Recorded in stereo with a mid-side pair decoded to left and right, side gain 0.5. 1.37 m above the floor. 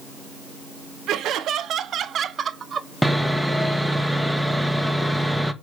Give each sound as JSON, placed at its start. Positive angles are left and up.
{"t": 1.1, "sound": "laughter", "azimuth_deg": -70, "distance_m": 1.6}
{"t": 3.0, "sound": "sawing", "azimuth_deg": 0, "distance_m": 1.6}